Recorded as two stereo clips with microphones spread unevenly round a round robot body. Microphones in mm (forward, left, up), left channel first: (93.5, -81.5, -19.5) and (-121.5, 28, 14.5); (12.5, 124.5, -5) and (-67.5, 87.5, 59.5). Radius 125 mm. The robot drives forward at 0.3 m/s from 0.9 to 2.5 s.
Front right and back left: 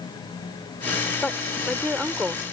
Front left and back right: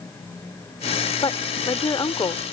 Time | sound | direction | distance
1.2 | a woman speaking | 60° left | ?